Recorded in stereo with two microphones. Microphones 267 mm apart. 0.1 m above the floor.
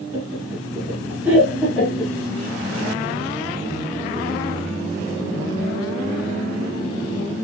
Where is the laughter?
20° right (ahead or behind), 1.8 m; by 2.1 s 5° left (ahead or behind), 1.9 m.